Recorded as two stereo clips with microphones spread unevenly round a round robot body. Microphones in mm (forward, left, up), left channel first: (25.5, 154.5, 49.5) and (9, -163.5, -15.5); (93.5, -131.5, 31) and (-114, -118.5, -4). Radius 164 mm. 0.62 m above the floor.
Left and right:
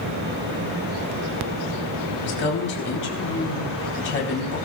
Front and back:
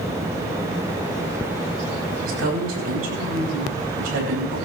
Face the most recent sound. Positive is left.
turn(degrees=145)